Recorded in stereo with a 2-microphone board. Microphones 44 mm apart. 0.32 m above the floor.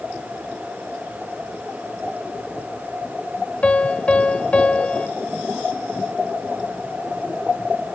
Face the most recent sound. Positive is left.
turn(degrees=30)  # may be behind; listen again after turning